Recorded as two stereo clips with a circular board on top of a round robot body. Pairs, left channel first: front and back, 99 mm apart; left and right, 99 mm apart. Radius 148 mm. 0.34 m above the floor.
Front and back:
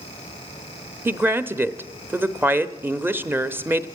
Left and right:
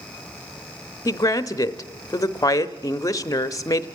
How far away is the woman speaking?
About 1.0 m.